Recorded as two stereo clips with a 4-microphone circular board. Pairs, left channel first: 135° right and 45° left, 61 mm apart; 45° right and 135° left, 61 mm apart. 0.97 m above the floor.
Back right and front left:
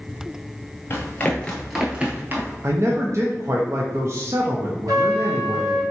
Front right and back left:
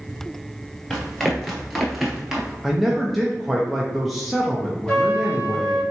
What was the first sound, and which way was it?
Running footsteps, 125° right.